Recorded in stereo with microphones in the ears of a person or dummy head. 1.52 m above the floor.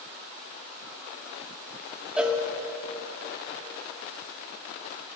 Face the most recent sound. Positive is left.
turn(degrees=-5)  # may be behind; listen again after turning